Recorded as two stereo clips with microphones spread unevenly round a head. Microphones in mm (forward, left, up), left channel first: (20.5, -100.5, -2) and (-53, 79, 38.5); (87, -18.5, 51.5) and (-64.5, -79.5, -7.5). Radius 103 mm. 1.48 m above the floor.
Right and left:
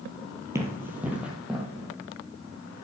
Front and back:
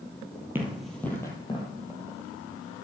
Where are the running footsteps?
95° left, 1.6 m; by 1.7 s 35° left, 2 m.